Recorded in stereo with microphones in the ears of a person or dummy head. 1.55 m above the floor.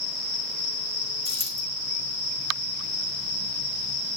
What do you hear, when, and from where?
1.2 s a dropped coin: 10° left (ahead or behind), 3.5 m